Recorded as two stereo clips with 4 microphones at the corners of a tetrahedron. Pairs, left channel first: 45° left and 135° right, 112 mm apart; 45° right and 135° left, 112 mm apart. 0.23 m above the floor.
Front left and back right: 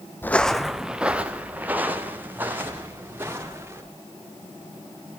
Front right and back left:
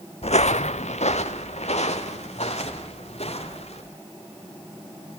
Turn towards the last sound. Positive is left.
turn(degrees=-65)